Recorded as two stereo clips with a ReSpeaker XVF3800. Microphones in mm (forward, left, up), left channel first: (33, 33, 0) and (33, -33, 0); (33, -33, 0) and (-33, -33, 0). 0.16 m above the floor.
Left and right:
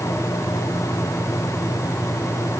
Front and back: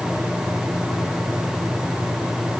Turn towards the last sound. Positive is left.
No sound to turn to.